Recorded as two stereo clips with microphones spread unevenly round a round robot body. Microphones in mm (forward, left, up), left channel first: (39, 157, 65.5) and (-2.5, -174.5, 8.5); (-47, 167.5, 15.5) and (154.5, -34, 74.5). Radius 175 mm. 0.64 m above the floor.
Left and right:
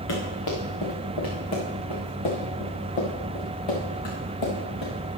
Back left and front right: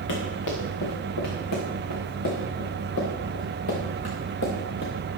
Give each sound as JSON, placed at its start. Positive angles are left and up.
{"t": 0.1, "sound": "running footsteps", "azimuth_deg": 120, "distance_m": 4.5}